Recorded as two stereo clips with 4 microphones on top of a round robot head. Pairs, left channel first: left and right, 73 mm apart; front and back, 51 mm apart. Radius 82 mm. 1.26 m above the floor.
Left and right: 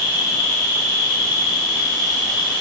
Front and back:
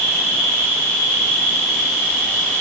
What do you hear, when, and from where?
0.0 s an insect: 145° right, 0.9 m